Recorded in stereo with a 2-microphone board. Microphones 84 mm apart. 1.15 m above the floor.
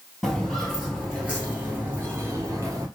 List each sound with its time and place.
0.2 s footsteps: 5° left (ahead or behind), 1.6 m; by 2.9 s 40° right (ahead or behind), 1.4 m